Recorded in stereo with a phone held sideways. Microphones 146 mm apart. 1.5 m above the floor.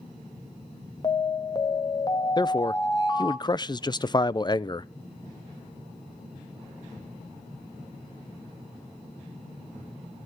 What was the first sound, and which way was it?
An alarm, 30° left (ahead or behind).